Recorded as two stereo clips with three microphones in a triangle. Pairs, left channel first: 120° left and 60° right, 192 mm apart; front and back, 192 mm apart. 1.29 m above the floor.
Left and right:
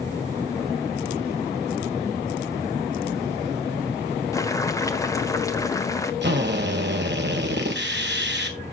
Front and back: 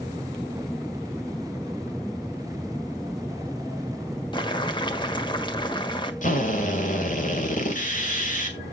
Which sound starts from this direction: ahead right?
A drill, at 6.2 s.